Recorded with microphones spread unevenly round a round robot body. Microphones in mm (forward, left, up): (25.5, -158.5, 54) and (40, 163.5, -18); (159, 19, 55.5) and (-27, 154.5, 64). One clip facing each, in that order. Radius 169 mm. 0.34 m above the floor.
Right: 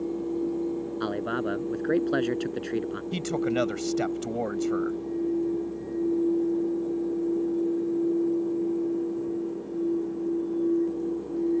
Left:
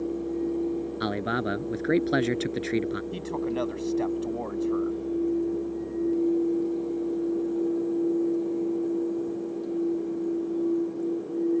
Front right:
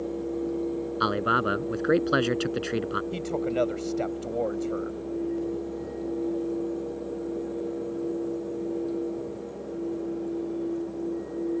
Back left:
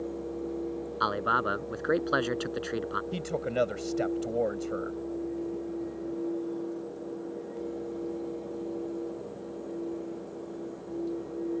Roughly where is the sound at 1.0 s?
Ahead.